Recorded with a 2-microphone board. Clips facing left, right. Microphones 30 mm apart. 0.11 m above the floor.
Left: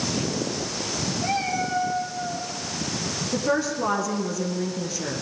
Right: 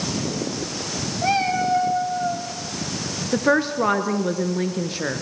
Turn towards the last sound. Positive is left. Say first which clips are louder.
# right 5 dB
turn(degrees=-40)  # may be behind; listen again after turning